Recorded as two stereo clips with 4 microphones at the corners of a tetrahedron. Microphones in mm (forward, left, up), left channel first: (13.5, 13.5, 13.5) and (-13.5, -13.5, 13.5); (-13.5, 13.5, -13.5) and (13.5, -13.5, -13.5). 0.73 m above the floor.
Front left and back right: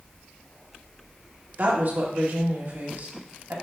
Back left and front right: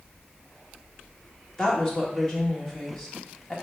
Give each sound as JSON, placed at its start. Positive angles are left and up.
{"t": 1.6, "sound": "a woman speaking", "azimuth_deg": -150, "distance_m": 2.0}